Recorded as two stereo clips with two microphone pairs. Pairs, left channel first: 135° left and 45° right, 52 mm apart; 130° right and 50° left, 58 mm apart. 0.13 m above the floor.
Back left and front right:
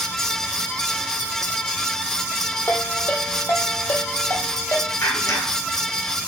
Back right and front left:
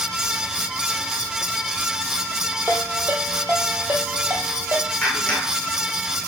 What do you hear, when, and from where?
2.7 s a ringtone: 95° left, 3 m
5.0 s a clap: 155° left, 7.5 m